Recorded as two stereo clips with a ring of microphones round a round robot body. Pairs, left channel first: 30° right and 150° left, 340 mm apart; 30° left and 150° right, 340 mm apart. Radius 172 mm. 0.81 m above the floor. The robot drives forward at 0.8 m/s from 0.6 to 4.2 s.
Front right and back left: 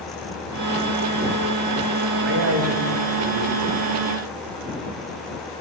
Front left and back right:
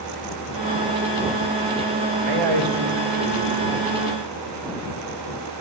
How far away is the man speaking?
About 2.5 m.